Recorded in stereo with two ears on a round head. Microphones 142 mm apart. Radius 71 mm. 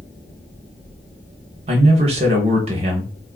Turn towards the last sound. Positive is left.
turn(degrees=-40)  # may be behind; listen again after turning